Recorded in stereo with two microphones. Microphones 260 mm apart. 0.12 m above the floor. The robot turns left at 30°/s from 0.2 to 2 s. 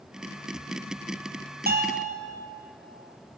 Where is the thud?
No thud in this recording.